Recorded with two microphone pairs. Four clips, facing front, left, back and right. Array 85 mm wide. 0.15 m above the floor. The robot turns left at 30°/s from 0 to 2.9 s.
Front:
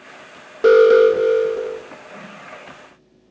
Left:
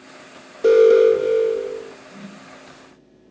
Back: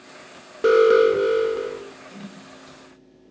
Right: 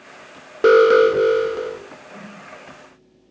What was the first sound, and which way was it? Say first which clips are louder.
An alarm: even, front 4 dB; 80° right.